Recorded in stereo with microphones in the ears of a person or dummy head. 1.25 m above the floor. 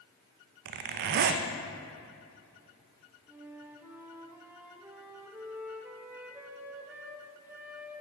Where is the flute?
10° right (ahead or behind), 0.9 m.